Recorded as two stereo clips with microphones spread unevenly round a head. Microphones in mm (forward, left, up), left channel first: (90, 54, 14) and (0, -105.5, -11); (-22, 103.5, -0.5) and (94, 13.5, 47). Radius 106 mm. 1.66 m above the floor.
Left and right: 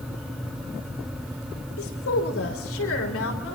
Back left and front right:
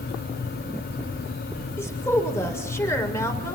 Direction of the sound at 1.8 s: 65° left.